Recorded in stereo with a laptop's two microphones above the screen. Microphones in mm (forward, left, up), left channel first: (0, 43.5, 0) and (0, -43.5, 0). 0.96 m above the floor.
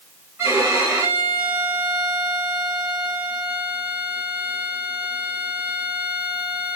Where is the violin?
20° right (ahead or behind), 1.7 m.